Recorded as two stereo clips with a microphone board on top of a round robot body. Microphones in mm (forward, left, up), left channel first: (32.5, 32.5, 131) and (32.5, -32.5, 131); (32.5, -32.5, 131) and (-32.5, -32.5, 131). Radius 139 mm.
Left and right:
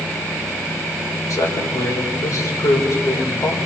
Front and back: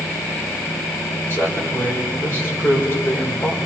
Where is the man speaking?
55° left, 4.5 m.